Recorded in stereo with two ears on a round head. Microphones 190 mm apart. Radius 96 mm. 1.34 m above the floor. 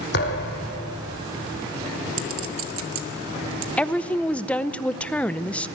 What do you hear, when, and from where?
0.1 s a thud: 50° left (ahead or behind), 2.5 m
2.2 s a clink: 70° right (ahead or behind), 1.2 m
3.8 s a woman speaking: 5° left (ahead or behind), 0.6 m